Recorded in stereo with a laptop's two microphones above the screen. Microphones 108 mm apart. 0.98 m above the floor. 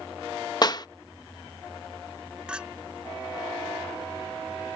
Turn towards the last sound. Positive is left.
turn(degrees=-10)  # may be behind; listen again after turning